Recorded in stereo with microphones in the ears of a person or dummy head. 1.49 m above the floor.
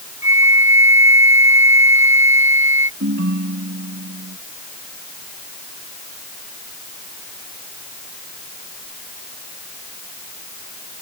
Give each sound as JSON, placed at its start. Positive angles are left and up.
{"t": 0.2, "sound": "a flute", "side_deg": -15}
{"t": 3.0, "sound": "a ringtone", "side_deg": -65}